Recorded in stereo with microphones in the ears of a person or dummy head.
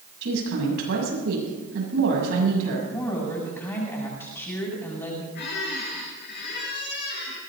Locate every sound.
0.2 s a woman speaking: 65° right (ahead or behind), 7 m
2.9 s a woman speaking: 10° left (ahead or behind), 6.5 m
5.3 s a squeak: 50° left (ahead or behind), 5.5 m